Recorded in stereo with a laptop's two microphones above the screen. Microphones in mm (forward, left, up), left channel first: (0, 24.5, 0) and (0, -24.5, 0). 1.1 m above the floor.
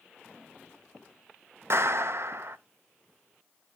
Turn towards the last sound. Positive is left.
turn(degrees=-60)  # may be behind; listen again after turning